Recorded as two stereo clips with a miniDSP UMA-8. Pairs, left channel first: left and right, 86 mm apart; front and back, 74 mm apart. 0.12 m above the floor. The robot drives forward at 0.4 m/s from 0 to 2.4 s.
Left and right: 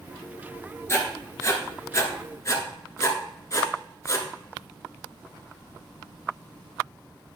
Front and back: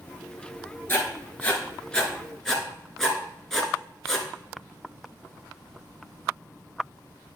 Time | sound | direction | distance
0.9 | writing | 50° left | 1.5 m